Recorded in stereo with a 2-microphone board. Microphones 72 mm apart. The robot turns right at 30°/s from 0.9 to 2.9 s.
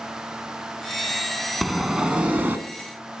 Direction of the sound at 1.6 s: Centre (ahead or behind).